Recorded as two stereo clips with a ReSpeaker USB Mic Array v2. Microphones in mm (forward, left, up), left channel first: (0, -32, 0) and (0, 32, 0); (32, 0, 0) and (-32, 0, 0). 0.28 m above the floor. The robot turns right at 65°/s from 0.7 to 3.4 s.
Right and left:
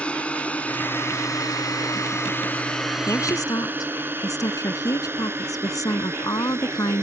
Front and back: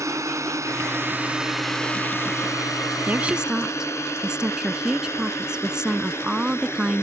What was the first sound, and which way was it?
A drone, 160° right.